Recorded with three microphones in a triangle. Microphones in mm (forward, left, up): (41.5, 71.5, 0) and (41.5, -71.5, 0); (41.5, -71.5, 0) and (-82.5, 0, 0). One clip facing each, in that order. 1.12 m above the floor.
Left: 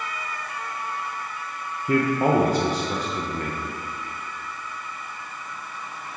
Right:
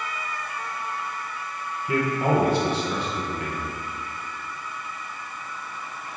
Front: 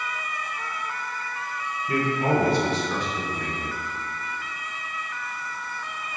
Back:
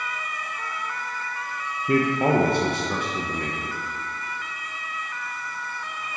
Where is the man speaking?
130° left, 0.6 m.